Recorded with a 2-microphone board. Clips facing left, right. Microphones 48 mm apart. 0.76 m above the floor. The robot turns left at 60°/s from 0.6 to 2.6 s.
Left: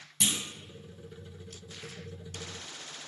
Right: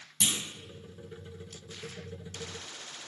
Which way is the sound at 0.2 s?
10° left (ahead or behind).